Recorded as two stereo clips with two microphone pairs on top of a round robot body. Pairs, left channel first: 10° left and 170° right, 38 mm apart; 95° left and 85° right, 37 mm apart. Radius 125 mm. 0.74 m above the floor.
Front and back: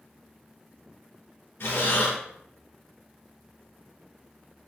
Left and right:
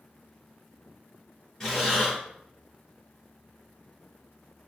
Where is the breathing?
30° left, 0.6 m.